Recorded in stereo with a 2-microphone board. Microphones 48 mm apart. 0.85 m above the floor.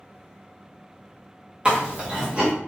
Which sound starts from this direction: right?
Chewing, at 1.6 s.